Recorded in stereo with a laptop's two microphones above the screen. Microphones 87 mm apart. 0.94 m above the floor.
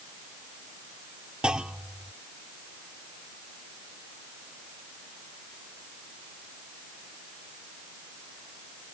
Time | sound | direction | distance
1.4 | a clunk | 10° right (ahead or behind) | ?